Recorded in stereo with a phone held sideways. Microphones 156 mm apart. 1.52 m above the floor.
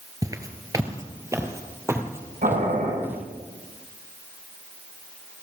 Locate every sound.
0.2 s footsteps: 20° right (ahead or behind), 1.6 m; by 3.2 s 15° right (ahead or behind), 3.5 m
2.4 s boiling: 60° right (ahead or behind), 8 m